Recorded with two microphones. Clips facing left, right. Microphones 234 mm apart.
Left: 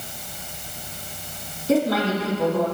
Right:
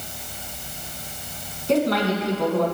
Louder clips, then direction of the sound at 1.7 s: Even; 5° left (ahead or behind).